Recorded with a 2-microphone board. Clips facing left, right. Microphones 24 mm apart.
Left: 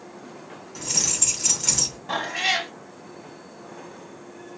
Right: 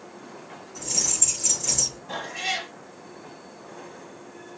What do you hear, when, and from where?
0.8 s keys jangling: 50° left (ahead or behind), 1.7 m
2.1 s a cat meowing: 40° left (ahead or behind), 0.8 m